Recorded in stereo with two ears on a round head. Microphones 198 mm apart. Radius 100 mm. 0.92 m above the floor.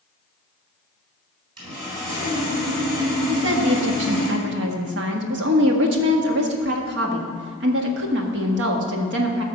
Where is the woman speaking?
65° right (ahead or behind), 1.5 m.